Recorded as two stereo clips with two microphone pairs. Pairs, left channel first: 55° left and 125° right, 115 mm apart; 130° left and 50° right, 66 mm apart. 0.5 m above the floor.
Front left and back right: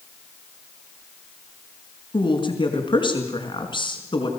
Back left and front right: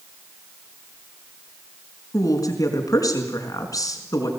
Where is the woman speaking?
100° left, 4.5 m.